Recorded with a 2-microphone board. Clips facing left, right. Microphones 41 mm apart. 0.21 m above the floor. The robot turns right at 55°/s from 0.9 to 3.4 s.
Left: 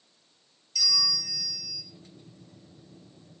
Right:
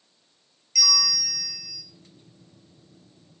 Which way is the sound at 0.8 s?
70° right.